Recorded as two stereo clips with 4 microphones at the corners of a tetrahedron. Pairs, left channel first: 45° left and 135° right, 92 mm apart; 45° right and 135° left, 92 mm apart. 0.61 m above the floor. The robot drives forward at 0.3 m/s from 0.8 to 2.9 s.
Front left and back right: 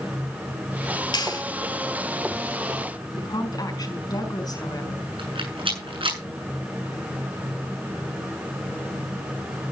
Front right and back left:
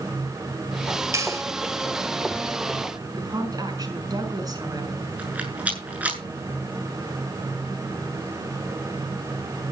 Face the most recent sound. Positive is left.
turn(degrees=-150)